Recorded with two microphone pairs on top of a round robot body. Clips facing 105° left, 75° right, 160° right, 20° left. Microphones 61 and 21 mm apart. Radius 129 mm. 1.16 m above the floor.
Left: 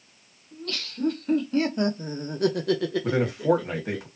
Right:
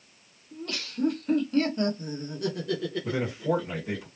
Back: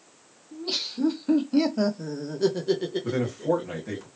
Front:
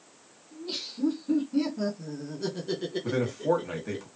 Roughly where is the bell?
No bell in this recording.